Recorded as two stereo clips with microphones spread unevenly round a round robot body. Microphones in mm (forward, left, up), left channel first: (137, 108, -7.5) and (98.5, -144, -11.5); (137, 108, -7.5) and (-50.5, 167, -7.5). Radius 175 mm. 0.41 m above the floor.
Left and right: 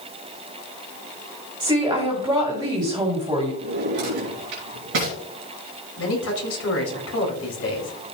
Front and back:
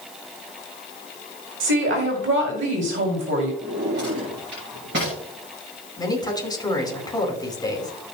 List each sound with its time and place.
1.6 s a woman speaking: 175° right, 2 m
3.6 s a drawer: 135° right, 3 m
6.0 s a man speaking: 55° left, 4 m